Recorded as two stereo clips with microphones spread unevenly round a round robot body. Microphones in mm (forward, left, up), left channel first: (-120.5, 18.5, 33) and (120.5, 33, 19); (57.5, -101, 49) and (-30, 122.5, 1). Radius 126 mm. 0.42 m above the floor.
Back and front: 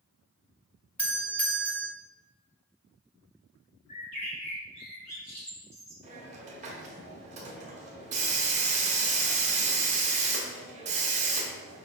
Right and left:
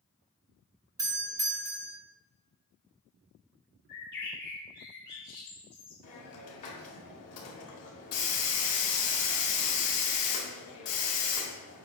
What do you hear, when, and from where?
1.0 s a doorbell: 100° left, 1.8 m
3.9 s a bird: 120° right, 2.5 m
6.0 s a hiss: 50° right, 1.5 m